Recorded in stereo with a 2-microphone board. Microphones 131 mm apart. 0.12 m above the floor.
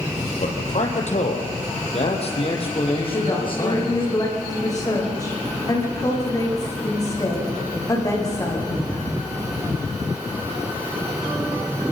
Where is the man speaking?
65° left (ahead or behind), 3.5 m; by 4.1 s 40° left (ahead or behind), 6 m.